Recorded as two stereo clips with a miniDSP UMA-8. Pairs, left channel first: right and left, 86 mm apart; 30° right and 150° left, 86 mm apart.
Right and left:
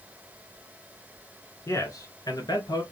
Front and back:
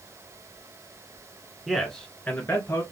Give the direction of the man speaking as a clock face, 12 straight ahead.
4 o'clock.